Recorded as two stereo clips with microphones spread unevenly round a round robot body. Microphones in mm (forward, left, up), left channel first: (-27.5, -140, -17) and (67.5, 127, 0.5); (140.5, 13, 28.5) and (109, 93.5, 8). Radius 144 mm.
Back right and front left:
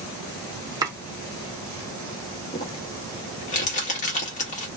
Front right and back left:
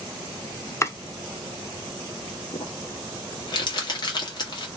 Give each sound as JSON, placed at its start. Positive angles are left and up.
{"t": 0.8, "sound": "chopping", "azimuth_deg": -5, "distance_m": 0.8}
{"t": 2.5, "sound": "crumpling", "azimuth_deg": -70, "distance_m": 1.0}